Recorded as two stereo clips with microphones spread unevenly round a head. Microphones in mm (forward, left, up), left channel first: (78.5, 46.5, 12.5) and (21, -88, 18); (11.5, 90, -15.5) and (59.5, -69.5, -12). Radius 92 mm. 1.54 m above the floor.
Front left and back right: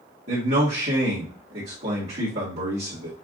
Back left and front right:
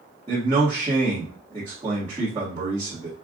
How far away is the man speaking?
About 1.8 m.